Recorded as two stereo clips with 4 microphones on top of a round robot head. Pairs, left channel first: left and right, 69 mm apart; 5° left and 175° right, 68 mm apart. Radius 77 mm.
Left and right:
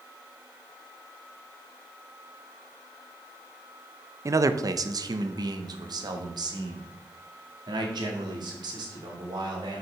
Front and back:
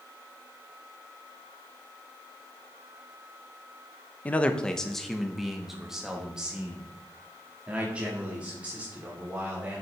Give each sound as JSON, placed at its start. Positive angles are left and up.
{"t": 4.2, "sound": "a man speaking", "azimuth_deg": -60, "distance_m": 0.6}